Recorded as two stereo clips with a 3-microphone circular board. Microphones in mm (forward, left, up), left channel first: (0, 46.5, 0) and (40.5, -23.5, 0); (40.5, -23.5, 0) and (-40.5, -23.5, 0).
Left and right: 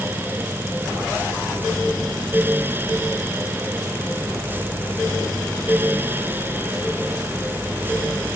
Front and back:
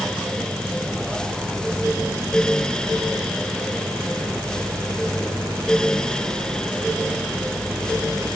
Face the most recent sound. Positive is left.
No sound to turn to.